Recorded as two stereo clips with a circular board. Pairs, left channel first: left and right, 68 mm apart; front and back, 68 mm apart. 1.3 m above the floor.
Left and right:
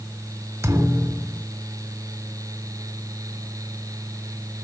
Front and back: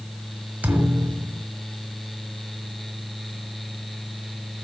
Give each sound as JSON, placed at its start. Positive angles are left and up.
{"t": 0.6, "sound": "a thud", "azimuth_deg": -120, "distance_m": 1.6}